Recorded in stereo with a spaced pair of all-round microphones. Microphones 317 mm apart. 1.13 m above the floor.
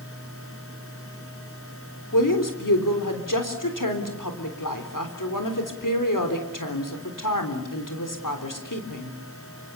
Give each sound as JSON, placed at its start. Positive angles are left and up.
{"t": 0.0, "sound": "a fan", "side_deg": 40, "distance_m": 5.0}
{"t": 2.1, "sound": "a woman speaking", "side_deg": 75, "distance_m": 3.5}